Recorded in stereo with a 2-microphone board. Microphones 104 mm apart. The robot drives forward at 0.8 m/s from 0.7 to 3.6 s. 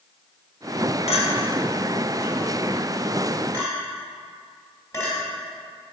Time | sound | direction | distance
1.1 | a clink | 70° left (ahead or behind) | 1.2 m